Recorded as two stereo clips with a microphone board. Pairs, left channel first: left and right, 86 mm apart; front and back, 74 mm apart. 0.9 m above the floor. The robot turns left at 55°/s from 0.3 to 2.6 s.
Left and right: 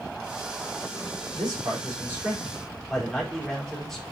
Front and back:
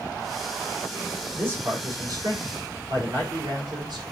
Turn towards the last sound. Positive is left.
turn(degrees=180)